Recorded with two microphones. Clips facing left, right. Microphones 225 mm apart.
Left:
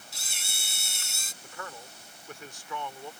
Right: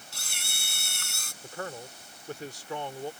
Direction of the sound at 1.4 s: 35° right (ahead or behind).